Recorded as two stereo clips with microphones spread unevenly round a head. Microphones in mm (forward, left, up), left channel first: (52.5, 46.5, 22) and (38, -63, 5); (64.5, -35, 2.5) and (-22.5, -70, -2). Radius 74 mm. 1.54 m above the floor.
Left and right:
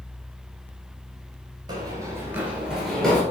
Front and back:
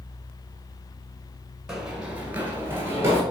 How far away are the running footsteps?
About 1.6 m.